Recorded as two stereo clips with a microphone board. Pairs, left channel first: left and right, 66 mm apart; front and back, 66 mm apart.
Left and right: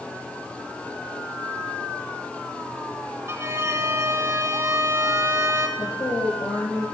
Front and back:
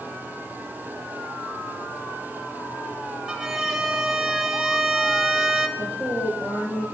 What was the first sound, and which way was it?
A violin, 95° right.